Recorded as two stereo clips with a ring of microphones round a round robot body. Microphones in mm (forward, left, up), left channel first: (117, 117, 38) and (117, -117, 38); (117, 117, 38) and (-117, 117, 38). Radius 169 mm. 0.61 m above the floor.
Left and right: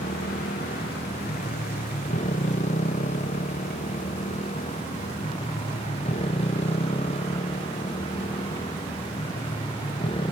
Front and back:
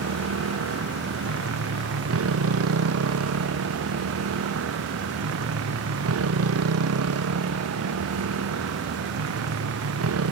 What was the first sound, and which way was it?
A motorcycle, 160° left.